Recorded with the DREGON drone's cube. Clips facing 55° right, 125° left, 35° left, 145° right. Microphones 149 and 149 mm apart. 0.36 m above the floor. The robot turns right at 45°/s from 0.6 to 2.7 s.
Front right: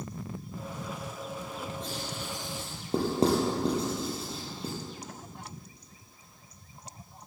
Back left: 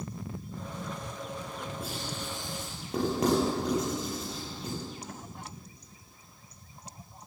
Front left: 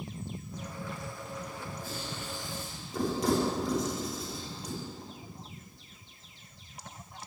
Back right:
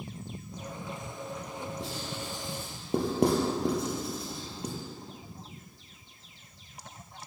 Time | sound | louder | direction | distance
1.8 | writing | even, back right 2 dB | 155° right | 3.5 m